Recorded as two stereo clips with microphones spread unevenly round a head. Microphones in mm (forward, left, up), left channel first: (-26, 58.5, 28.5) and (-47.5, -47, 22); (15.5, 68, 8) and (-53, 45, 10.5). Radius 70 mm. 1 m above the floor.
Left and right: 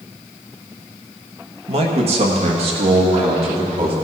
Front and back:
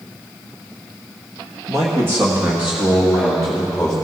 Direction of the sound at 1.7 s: 105° right.